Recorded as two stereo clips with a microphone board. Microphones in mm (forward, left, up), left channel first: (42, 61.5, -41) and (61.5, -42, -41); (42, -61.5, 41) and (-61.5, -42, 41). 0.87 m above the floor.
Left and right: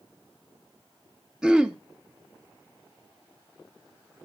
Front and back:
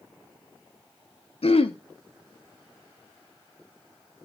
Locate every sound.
1.4 s throat clearing: 5° left, 0.8 m